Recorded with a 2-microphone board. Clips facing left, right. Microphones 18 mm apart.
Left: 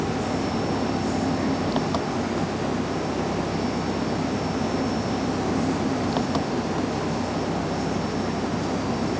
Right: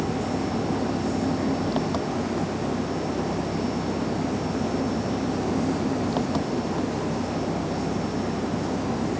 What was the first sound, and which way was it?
An engine running, 15° left (ahead or behind).